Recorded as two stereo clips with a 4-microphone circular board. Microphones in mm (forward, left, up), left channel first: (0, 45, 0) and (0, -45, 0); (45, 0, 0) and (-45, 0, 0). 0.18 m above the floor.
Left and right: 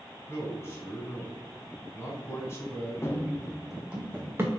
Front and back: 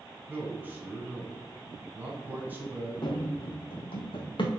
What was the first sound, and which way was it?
A man speaking, 125° left.